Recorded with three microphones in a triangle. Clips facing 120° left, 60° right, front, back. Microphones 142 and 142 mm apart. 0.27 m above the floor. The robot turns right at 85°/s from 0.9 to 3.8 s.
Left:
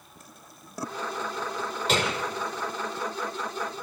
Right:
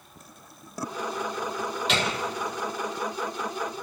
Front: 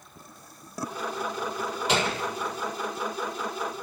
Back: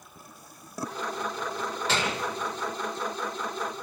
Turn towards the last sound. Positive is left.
turn(degrees=-125)